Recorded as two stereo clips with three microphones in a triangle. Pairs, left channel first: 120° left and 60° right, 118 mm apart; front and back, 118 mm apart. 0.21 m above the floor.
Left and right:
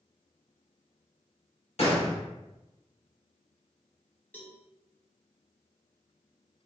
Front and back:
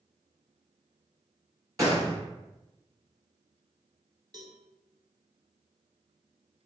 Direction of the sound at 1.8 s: 120° left.